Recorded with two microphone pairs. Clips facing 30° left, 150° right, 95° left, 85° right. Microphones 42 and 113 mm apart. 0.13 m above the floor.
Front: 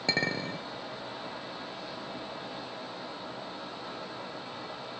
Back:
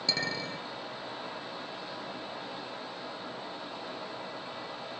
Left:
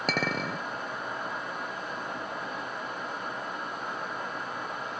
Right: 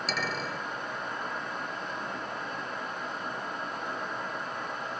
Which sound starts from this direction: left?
A clink, at 0.1 s.